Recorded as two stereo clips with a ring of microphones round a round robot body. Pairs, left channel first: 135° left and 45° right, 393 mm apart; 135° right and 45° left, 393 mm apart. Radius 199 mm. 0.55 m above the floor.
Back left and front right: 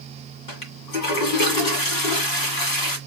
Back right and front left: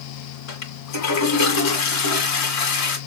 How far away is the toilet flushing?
About 1.8 m.